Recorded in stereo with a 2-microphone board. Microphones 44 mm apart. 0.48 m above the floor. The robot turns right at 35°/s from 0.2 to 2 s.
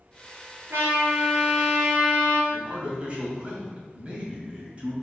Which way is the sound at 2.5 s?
30° right (ahead or behind).